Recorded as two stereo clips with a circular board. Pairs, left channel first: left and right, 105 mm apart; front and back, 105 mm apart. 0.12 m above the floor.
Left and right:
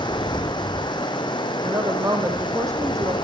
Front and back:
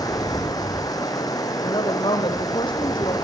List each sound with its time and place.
0.0 s running water: 50° left, 3 m
1.6 s a woman speaking: 35° right, 4.5 m